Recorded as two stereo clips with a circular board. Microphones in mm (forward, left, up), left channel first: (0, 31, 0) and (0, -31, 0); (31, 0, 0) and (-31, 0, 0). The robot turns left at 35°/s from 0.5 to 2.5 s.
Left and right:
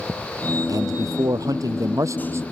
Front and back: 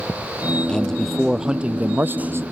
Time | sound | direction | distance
0.7 | a man speaking | 75° right | ?